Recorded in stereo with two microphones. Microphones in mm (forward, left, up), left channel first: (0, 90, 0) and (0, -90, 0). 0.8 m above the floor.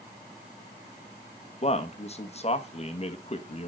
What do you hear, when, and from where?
1.6 s a man speaking: 35° left (ahead or behind), 1.0 m